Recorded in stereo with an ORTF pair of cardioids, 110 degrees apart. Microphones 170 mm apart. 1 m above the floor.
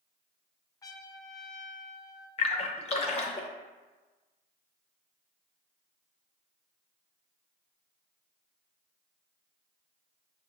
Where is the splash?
40° left, 0.7 m.